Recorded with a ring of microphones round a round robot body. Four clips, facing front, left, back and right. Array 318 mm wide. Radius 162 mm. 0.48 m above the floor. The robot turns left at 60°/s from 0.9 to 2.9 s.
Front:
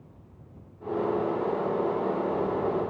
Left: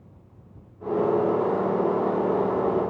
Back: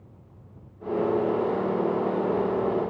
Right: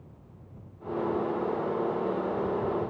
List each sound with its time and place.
Only background noise.